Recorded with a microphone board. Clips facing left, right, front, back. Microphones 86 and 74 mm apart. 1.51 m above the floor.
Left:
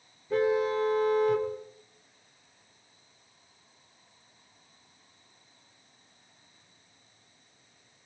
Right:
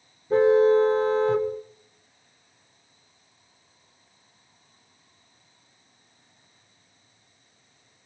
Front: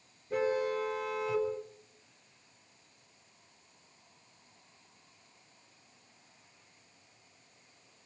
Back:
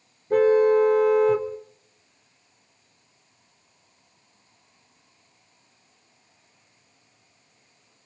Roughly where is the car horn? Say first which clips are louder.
Right 9 dB, back 14 dB; behind right.